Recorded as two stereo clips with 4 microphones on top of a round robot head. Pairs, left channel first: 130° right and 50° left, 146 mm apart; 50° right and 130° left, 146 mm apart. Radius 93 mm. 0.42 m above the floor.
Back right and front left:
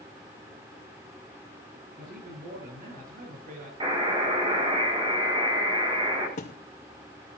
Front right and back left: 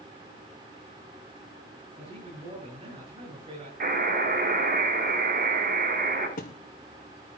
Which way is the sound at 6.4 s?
90° right.